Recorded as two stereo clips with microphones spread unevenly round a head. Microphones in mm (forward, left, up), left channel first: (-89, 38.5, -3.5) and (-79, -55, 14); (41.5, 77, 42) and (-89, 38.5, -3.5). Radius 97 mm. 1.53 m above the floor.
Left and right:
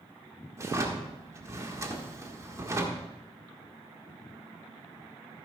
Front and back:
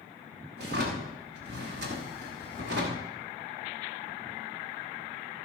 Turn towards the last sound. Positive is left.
turn(degrees=-130)